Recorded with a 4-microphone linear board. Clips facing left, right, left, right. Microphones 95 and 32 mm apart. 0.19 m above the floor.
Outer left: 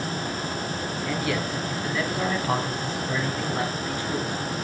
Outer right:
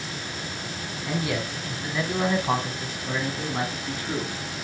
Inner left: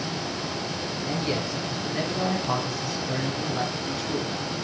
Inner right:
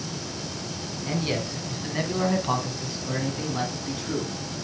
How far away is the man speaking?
About 1.9 m.